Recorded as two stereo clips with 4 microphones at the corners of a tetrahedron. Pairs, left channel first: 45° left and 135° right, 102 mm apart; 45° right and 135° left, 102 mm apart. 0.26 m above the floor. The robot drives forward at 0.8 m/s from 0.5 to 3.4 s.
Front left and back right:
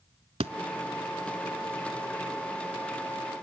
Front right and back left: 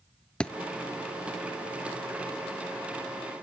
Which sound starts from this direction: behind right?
A thud, at 0.4 s.